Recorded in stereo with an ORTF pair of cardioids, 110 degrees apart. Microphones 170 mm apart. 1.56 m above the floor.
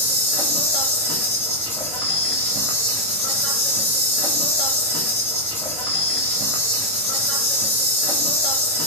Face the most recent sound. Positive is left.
turn(degrees=10)